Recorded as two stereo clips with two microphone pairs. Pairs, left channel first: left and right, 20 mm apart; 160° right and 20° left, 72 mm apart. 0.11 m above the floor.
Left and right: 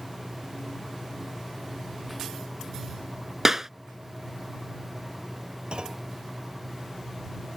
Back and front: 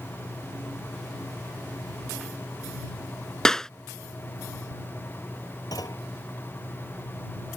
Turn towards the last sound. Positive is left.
turn(degrees=-135)